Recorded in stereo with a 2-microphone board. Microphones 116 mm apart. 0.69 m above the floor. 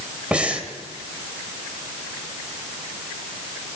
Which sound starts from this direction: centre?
Breathing, at 0.3 s.